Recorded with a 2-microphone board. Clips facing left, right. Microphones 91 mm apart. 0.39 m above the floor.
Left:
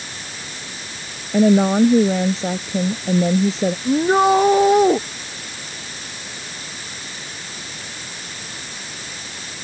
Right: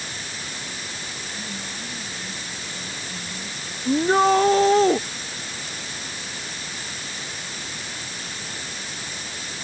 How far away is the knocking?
No knocking in this recording.